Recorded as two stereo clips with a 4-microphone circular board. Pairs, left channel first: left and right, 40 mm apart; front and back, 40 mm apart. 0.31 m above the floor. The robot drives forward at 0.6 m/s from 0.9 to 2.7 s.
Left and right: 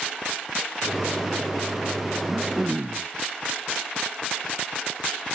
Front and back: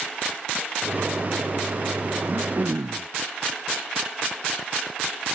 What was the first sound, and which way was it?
Throat clearing, 165° right.